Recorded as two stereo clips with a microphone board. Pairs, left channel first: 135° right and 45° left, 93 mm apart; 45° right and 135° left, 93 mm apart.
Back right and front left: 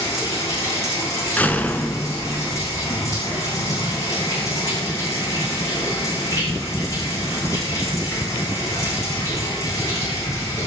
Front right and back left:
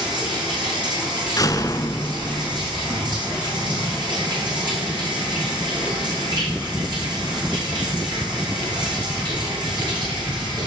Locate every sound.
0.0 s running water: 170° left, 9.5 m
1.4 s a door slam: 70° right, 1.2 m